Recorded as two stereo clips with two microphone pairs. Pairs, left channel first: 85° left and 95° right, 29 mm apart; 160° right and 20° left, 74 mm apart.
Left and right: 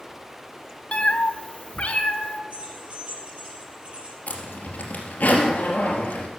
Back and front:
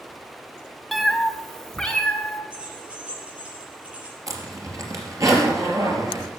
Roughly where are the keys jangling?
Ahead right.